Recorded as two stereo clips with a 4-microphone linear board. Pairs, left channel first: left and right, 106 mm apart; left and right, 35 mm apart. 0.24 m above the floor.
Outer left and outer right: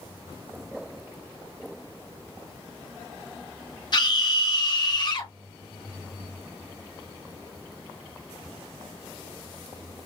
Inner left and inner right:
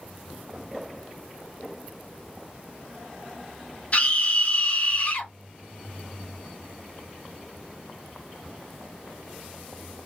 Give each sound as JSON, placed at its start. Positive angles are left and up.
{"t": 3.9, "sound": "a scream", "side_deg": 45, "distance_m": 2.0}